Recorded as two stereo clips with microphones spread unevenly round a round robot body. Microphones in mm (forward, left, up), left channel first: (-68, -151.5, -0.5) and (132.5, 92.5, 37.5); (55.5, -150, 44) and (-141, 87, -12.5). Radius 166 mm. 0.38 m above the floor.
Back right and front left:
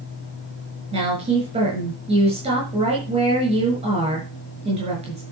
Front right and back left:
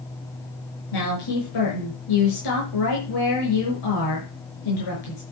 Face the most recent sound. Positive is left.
turn(degrees=-20)